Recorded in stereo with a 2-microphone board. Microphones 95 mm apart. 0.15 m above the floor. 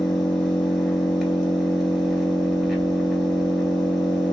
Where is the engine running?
Centre (ahead or behind), 1.4 m.